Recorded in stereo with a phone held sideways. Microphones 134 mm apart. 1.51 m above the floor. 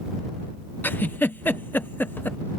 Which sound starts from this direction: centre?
A giggle, at 0.8 s.